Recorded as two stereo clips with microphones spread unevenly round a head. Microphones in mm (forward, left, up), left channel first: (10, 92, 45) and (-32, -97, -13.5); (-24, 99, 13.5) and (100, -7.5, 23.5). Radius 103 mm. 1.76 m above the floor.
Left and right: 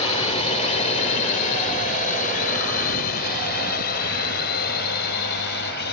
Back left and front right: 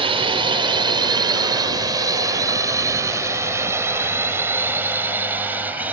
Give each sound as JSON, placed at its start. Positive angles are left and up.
{"t": 0.0, "sound": "a drone", "azimuth_deg": 15}